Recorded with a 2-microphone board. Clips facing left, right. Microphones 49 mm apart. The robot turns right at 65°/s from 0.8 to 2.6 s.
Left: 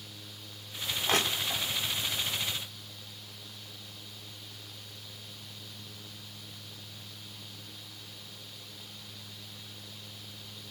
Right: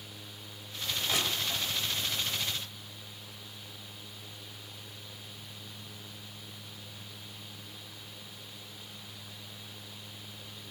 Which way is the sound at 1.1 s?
60° left (ahead or behind).